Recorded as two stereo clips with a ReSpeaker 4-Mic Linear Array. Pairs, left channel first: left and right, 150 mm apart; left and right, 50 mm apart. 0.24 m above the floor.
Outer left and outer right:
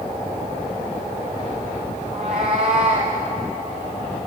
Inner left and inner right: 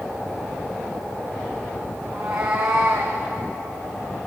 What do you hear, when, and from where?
2.1 s a cat meowing: 45° right (ahead or behind), 3 m; by 3.2 s 55° right (ahead or behind), 3.5 m